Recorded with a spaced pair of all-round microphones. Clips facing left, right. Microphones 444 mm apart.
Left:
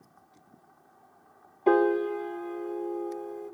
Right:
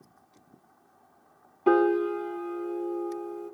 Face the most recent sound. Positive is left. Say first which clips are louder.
# right 1 dB
turn(degrees=-25)  # may be behind; listen again after turning